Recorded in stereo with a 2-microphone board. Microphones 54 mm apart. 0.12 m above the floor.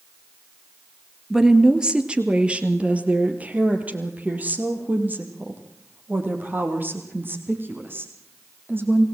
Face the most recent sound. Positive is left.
turn(degrees=-45)  # may be behind; listen again after turning